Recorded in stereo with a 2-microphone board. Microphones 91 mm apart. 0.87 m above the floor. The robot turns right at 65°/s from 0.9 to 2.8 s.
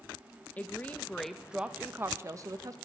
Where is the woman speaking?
150° left, 0.6 m; by 2.8 s 90° right, 0.6 m.